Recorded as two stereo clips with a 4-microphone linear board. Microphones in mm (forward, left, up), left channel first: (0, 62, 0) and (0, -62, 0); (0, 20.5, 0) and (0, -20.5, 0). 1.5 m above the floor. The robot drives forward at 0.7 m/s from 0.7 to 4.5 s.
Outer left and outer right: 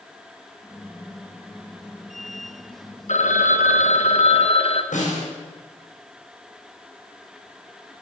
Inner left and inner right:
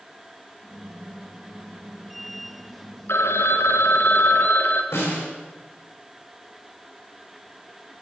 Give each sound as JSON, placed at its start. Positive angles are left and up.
{"t": 3.1, "sound": "a phone ringing", "side_deg": 65, "distance_m": 1.2}
{"t": 4.9, "sound": "a snare drum", "side_deg": 80, "distance_m": 6.5}